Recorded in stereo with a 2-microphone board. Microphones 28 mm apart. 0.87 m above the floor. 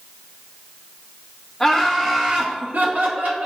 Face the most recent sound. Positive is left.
turn(degrees=-75)  # may be behind; listen again after turning